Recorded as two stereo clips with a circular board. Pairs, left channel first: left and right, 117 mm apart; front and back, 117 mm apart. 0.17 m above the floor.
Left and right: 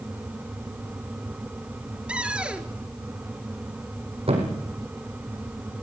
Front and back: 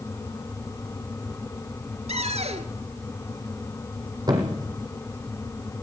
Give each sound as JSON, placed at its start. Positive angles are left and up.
{"t": 2.1, "sound": "a cupboard door", "azimuth_deg": -170, "distance_m": 1.5}
{"t": 4.3, "sound": "a thud", "azimuth_deg": -125, "distance_m": 4.0}